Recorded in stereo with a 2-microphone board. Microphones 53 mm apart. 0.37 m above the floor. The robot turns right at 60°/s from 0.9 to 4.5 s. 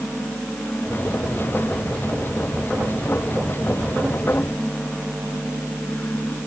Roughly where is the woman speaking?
No woman speaking in this recording.